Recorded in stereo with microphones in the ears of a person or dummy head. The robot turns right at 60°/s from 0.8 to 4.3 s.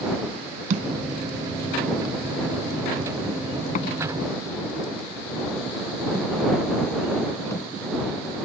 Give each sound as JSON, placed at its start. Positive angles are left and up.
{"t": 0.7, "sound": "a thud", "side_deg": -40}